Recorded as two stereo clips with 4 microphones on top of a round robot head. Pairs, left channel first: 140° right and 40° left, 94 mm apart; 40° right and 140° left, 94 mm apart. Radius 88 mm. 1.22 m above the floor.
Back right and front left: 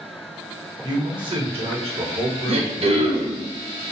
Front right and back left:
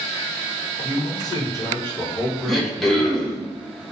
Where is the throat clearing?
50° left, 1.0 m.